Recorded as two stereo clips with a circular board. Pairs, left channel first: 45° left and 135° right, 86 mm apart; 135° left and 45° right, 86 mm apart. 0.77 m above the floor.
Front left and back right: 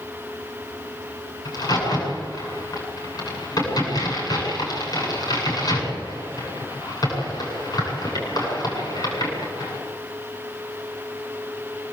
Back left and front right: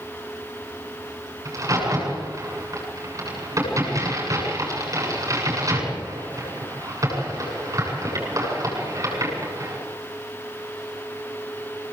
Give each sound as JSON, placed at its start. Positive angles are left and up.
{"t": 1.4, "sound": "a crack", "azimuth_deg": 5, "distance_m": 8.0}